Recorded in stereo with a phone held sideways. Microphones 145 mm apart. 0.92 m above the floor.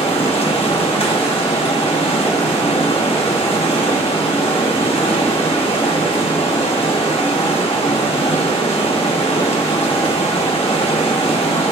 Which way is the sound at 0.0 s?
45° left (ahead or behind).